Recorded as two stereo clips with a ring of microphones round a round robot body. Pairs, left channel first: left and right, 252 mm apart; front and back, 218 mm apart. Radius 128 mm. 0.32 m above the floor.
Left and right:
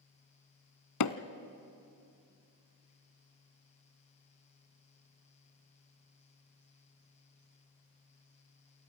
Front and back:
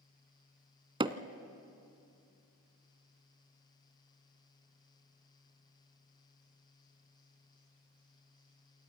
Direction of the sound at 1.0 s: 110° left.